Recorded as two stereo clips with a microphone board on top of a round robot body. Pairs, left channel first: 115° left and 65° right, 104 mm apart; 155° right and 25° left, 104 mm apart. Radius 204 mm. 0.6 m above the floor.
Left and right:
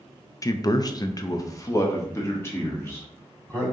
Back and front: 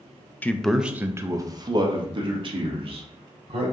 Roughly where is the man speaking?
Behind left.